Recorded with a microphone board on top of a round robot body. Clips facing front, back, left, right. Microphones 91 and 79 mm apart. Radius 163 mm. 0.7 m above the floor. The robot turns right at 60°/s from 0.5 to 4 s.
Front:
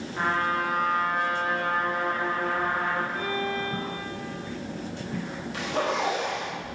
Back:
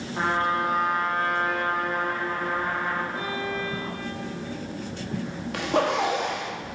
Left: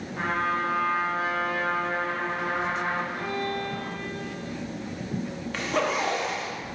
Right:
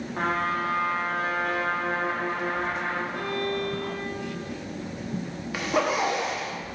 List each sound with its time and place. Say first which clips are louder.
0.1 s a trumpet: back 2 dB, even; 120° right, 1.8 m; by 3.0 s 35° left, 1.8 m
3.1 s a violin: front 1 dB, right 1 dB; 115° right, 1.4 m; by 4.5 s 60° right, 1.4 m
5.5 s a zipper: back 4 dB, right 2 dB; 170° right, 1.5 m